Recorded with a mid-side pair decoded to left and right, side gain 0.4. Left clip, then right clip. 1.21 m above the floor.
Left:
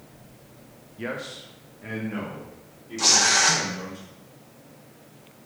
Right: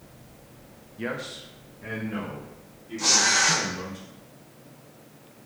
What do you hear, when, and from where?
1.0 s a man speaking: 5° right, 0.6 m
3.0 s tearing paper: 60° left, 1.1 m